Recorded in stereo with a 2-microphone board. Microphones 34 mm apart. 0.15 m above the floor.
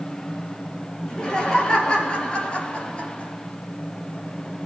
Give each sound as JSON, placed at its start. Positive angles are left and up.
{"t": 1.0, "sound": "laughter", "side_deg": 15, "distance_m": 3.0}